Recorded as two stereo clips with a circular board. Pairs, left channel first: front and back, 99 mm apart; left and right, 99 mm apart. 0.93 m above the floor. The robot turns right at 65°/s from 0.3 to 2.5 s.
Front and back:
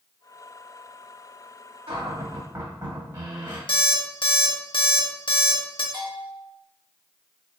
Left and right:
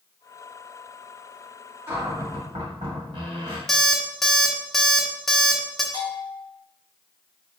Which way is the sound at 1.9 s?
165° right.